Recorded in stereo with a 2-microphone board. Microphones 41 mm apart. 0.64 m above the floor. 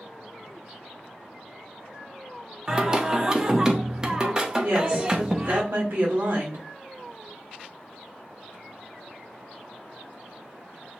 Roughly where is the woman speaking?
Right.